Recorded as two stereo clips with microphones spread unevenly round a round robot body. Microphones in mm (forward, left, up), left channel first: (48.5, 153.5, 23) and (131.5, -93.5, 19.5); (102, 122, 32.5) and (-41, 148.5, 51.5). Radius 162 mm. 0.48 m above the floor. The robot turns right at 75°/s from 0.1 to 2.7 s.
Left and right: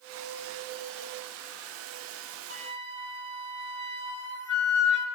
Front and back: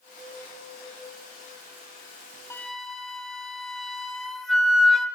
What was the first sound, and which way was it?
A flute, 65° left.